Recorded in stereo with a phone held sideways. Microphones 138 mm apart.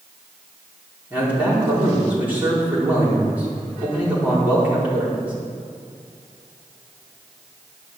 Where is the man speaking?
10° right (ahead or behind), 4.5 m.